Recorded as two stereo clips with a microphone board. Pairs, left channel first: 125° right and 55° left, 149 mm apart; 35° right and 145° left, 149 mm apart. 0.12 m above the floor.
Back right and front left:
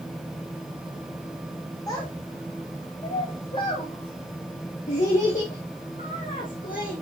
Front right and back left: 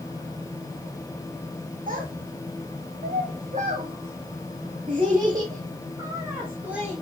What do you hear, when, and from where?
1.9 s a child speaking: 170° left, 3 m; by 7.0 s 130° right, 2.5 m